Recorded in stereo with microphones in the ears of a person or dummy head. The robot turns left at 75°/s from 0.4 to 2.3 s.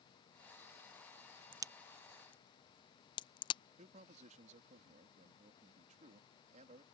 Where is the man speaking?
40° right (ahead or behind).